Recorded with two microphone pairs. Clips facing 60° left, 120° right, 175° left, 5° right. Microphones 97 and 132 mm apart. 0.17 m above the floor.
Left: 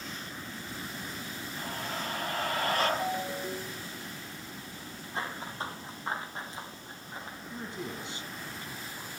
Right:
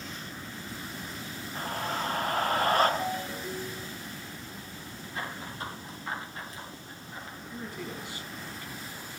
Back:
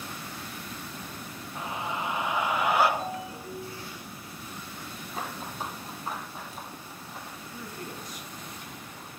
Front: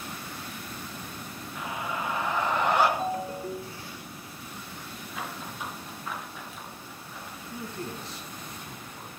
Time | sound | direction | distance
1.6 | a scream | 135° right | 2.5 m
3.0 | a ringtone | 15° right | 0.7 m
5.1 | running footsteps | 120° left | 5.5 m
7.5 | a man speaking | 25° left | 1.8 m